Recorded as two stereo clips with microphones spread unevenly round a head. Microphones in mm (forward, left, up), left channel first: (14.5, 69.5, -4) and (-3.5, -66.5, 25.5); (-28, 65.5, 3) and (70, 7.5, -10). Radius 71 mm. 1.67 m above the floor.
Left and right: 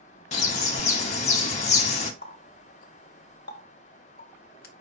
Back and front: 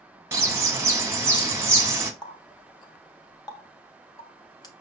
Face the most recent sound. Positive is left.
turn(degrees=105)